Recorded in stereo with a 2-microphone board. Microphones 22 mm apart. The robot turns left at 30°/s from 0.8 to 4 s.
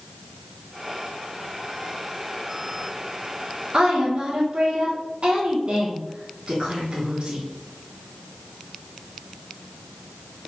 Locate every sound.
3.7 s a woman speaking: 40° right (ahead or behind), 1.4 m